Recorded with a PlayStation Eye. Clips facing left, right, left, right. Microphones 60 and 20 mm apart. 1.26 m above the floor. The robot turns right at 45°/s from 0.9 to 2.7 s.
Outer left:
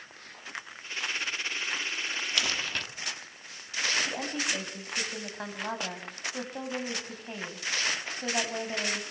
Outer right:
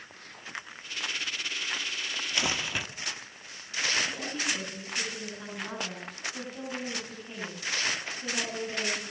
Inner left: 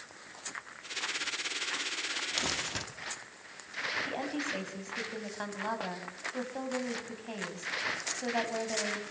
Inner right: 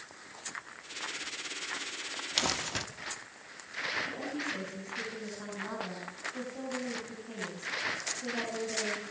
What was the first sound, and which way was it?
Crumpling, 25° right (ahead or behind).